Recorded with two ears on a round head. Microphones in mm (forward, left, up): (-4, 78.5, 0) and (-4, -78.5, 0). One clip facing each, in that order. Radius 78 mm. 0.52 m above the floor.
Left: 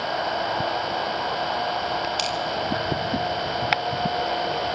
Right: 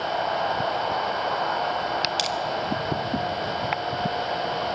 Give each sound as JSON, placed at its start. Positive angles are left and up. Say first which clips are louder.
{"t": 2.2, "sound": "crushing", "louder": "even", "side_deg": -10, "distance_m": 2.5}